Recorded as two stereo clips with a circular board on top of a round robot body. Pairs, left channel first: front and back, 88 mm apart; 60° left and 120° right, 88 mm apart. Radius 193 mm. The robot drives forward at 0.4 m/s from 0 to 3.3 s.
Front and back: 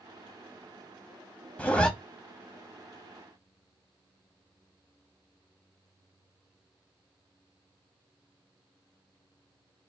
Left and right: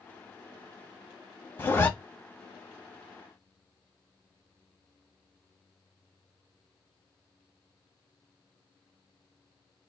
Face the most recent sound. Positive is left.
turn(degrees=130)